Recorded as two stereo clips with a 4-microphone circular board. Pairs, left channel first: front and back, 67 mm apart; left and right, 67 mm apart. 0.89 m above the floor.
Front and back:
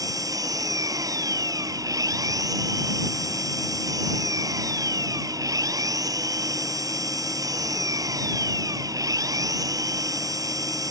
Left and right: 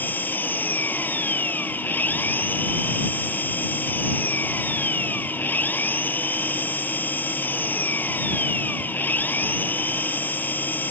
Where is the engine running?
150° left.